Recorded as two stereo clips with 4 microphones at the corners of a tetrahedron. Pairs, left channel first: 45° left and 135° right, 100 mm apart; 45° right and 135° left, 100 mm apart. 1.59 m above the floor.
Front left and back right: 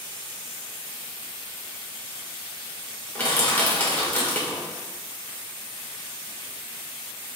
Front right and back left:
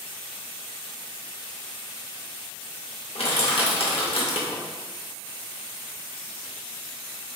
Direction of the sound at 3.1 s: 30° right.